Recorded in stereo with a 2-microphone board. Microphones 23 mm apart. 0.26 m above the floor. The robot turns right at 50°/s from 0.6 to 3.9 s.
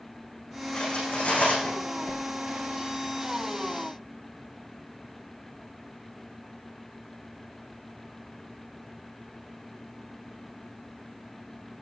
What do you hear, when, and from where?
0.7 s cutlery clinking: 45° left, 9.5 m; by 1.8 s 95° left, 9.5 m
2.0 s a whoosh: 75° left (ahead or behind), 1.5 m; by 2.2 s 65° left (ahead or behind), 1.5 m